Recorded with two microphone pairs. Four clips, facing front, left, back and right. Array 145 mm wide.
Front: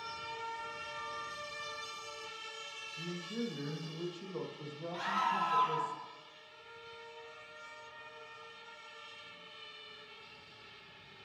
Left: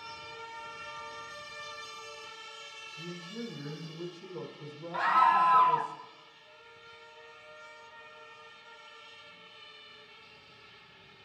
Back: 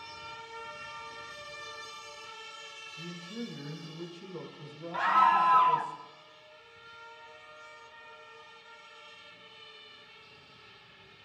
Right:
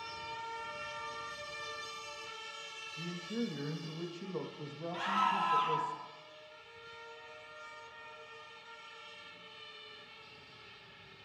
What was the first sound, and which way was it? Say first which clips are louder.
A man speaking: right 3 dB, front 1 dB; 75° right.